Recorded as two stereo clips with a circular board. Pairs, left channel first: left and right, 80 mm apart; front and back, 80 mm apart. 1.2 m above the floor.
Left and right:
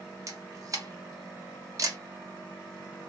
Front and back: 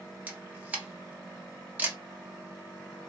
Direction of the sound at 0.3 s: 115° right.